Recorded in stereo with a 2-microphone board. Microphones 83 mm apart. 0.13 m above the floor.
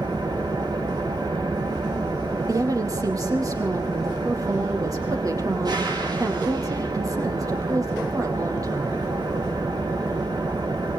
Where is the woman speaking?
45° right (ahead or behind), 4.5 m.